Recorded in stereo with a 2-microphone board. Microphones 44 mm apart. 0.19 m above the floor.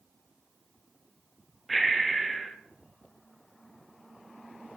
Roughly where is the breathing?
Centre.